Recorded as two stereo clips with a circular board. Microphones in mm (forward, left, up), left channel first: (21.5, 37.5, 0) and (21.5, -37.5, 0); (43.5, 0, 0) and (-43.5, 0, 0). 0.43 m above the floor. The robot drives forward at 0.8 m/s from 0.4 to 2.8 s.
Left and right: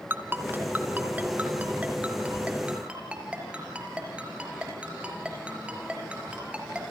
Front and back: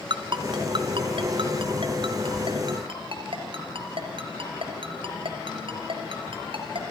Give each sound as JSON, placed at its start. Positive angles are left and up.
{"t": 0.1, "sound": "a ringtone", "azimuth_deg": -155, "distance_m": 2.0}